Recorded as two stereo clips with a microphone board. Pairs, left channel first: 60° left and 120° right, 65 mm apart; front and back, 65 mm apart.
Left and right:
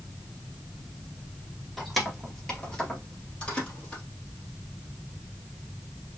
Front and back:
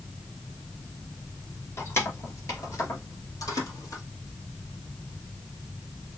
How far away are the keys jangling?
About 1.3 m.